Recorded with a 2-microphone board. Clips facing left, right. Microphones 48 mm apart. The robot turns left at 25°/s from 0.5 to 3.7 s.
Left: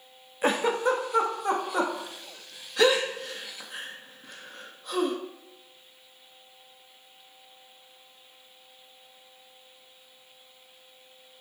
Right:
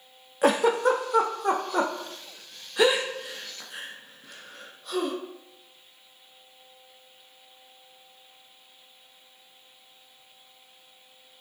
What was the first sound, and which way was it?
A giggle, 70° right (ahead or behind).